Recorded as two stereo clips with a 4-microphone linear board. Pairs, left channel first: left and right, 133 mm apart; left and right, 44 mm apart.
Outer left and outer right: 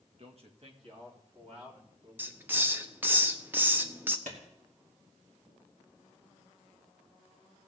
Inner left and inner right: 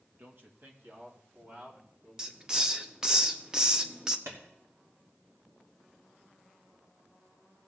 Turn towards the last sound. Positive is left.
turn(degrees=-75)  # may be behind; listen again after turning